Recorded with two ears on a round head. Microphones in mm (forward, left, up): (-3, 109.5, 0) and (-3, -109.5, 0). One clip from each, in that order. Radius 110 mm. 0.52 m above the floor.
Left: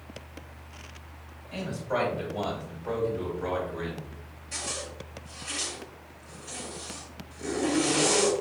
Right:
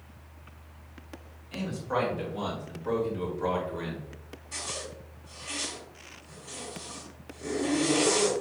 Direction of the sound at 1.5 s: 15° right (ahead or behind).